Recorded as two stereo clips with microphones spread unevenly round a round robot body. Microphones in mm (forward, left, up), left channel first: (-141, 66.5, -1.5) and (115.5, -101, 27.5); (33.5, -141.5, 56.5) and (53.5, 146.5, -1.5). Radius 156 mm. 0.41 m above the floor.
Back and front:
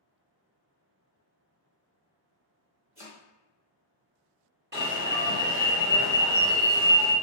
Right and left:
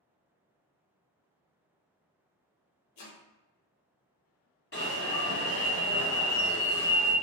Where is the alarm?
55° right, 1.1 m.